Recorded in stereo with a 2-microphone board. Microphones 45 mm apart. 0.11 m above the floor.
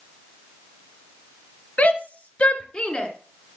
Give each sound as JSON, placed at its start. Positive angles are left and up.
{"t": 1.8, "sound": "a shout", "side_deg": 40, "distance_m": 2.0}